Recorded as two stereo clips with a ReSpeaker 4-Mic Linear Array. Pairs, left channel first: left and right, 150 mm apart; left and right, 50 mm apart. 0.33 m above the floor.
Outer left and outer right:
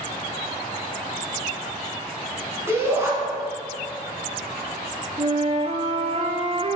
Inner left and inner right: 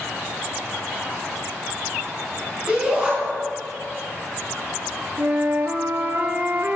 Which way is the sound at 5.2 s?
45° right (ahead or behind).